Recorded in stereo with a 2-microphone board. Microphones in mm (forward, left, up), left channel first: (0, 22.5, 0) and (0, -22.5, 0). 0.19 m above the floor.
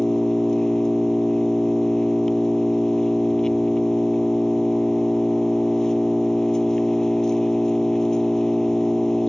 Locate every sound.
0.0 s an engine running: 15° left (ahead or behind)